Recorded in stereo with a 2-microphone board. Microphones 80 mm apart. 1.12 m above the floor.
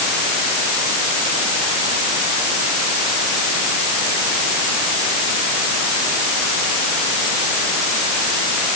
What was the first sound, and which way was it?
Only background noise.